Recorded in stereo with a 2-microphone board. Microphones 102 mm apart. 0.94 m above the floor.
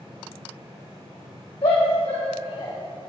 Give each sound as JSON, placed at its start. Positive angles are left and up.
{"t": 1.6, "sound": "a shout", "side_deg": 70, "distance_m": 2.0}